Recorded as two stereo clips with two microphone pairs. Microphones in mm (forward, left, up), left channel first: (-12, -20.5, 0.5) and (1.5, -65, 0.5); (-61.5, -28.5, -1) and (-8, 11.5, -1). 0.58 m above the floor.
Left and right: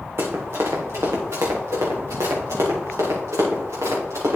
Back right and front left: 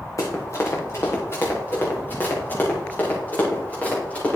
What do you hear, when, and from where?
0.2 s running footsteps: 105° right, 2.5 m; by 4.4 s 75° right, 5 m